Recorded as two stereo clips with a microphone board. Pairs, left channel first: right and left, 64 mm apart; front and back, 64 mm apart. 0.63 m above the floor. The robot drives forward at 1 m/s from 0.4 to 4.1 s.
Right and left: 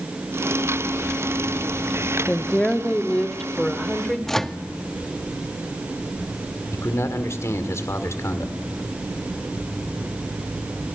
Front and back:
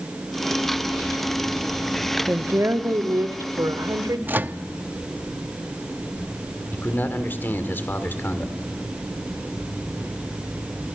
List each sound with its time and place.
2.3 s a woman speaking: 155° right, 1.1 m; by 4.2 s 175° right, 2.5 m
4.3 s a microwave: 170° right, 0.6 m
6.7 s a man speaking: 55° right, 1.9 m